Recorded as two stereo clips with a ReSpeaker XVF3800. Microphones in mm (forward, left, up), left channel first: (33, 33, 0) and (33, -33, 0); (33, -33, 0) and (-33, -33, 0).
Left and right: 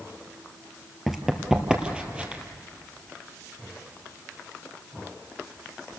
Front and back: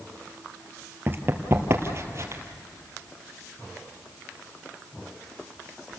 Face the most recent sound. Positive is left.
turn(degrees=-155)